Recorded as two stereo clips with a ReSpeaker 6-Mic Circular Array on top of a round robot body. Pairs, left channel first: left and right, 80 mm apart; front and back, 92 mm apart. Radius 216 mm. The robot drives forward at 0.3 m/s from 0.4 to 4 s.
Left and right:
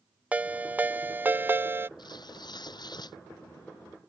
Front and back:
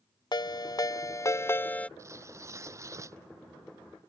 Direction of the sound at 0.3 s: 20° right.